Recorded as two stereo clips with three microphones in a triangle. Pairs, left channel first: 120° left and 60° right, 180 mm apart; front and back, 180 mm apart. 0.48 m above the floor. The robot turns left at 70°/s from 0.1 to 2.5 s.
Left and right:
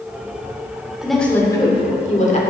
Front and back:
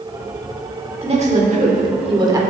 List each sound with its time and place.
1.0 s a woman speaking: 145° right, 1.2 m; by 2.4 s 120° left, 1.2 m